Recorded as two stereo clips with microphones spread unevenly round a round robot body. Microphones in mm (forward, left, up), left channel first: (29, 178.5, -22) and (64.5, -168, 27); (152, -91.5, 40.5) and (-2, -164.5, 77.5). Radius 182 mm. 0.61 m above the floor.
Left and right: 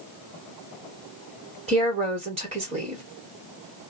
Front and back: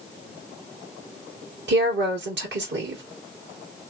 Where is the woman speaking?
160° right, 1.5 m.